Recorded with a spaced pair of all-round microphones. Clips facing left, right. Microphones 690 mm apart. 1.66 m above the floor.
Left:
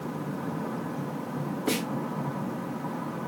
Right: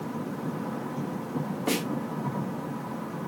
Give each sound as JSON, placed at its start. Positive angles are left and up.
{"t": 1.7, "sound": "a snare drum", "side_deg": -15, "distance_m": 1.7}